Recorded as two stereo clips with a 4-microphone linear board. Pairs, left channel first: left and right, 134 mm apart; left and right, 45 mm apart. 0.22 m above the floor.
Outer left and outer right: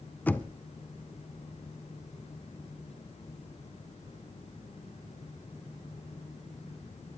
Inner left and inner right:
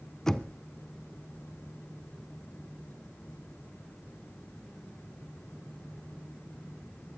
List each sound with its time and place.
0.3 s knocking: 15° left (ahead or behind), 1.2 m